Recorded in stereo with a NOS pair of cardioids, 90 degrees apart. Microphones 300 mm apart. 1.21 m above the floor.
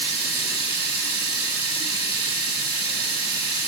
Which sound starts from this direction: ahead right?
Running water, at 0.0 s.